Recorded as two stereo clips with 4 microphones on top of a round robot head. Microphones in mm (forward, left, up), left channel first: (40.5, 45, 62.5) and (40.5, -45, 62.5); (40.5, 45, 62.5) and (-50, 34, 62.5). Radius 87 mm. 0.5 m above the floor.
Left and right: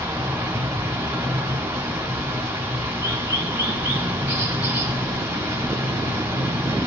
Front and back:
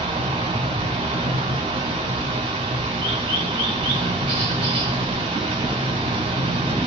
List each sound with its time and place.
0.0 s running water: 160° right, 1.7 m